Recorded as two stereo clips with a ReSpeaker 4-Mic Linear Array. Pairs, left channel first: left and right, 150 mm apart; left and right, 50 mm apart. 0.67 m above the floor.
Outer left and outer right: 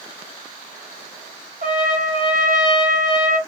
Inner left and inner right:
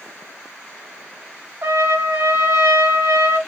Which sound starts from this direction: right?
A trumpet, at 1.6 s.